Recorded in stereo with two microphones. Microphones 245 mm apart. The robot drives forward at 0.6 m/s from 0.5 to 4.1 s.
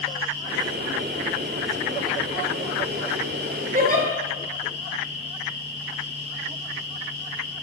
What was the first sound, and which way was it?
A giggle, 35° right (ahead or behind).